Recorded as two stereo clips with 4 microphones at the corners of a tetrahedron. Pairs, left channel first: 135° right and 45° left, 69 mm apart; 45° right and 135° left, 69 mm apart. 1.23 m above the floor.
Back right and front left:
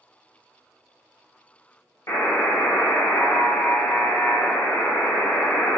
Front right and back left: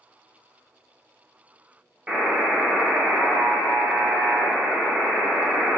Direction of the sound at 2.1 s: 150° right.